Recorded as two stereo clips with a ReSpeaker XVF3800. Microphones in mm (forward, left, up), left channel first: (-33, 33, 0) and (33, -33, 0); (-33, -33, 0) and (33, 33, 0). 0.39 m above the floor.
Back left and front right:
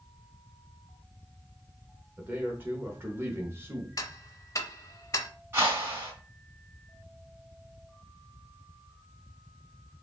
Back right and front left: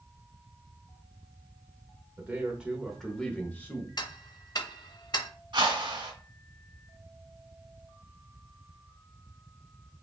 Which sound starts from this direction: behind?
Ticking, at 4.0 s.